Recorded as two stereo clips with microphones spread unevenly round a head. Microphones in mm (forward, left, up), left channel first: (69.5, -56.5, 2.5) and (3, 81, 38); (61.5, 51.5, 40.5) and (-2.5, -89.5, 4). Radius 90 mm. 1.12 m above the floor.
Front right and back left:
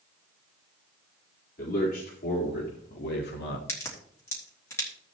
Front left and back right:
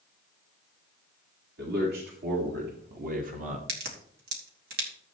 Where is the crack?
140° right, 2.5 m.